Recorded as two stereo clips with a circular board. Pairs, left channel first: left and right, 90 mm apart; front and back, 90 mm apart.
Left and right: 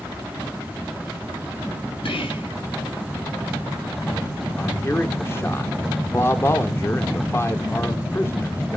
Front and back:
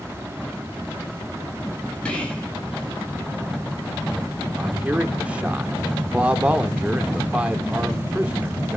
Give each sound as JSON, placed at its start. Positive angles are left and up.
{"t": 2.0, "sound": "whispering", "azimuth_deg": 80, "distance_m": 6.5}
{"t": 4.6, "sound": "a man speaking", "azimuth_deg": 120, "distance_m": 1.0}